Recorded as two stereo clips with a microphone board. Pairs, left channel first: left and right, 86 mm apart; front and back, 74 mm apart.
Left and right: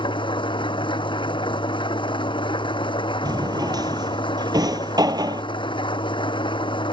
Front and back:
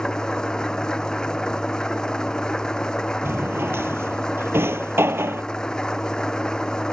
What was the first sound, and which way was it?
An engine running, 80° left.